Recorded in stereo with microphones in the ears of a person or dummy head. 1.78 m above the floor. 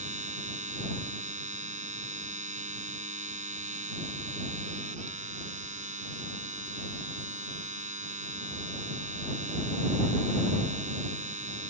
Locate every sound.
0.0 s a machine running: 35° right (ahead or behind)